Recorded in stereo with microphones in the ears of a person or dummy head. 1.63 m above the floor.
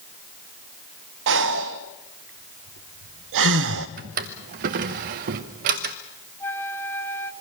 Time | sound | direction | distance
1.3 | breathing | 65° right (ahead or behind) | 1.0 m
4.0 | a drawer | 35° right (ahead or behind) | 0.9 m
6.4 | a flute | 10° left (ahead or behind) | 1.5 m